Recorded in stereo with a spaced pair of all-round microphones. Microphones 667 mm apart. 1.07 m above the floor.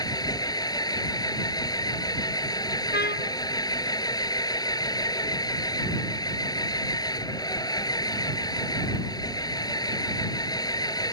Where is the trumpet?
15° left (ahead or behind).